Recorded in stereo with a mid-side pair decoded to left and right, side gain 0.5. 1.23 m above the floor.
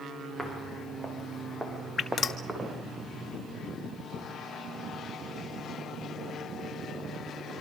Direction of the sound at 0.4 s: Straight ahead.